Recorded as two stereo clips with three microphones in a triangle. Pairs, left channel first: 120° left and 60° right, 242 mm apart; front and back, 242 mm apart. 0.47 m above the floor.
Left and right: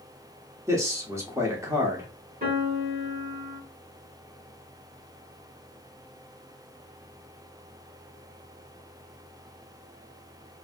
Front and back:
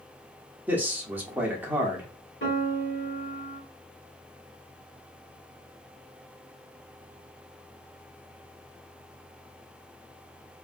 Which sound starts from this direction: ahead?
A piano, at 2.4 s.